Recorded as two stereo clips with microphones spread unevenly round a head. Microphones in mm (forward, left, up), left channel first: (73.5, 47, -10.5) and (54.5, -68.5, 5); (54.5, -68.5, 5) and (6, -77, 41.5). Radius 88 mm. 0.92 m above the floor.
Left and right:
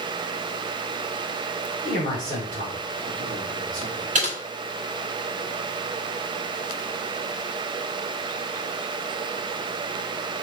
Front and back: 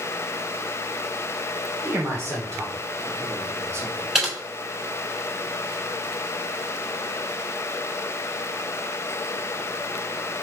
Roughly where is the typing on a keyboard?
Right.